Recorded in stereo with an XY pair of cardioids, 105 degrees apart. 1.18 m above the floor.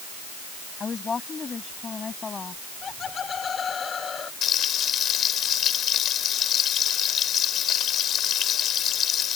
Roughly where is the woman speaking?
Ahead left.